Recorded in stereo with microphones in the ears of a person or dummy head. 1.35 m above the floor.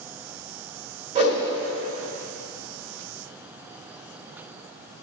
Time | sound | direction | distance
1.1 | a whoosh | 30° right (ahead or behind) | 1.7 m